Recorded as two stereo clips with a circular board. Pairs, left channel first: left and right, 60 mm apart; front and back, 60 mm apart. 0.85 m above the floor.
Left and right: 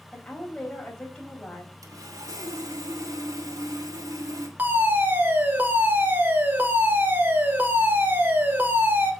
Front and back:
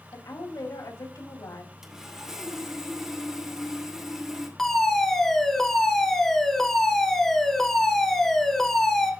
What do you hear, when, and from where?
0.1 s a woman speaking: 10° left, 4 m
1.8 s sawing: 100° right, 2.5 m
4.6 s a fire alarm: 75° right, 2 m